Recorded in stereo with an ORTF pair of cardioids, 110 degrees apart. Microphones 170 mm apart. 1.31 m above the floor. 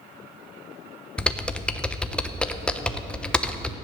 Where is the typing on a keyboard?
5° left, 0.9 m.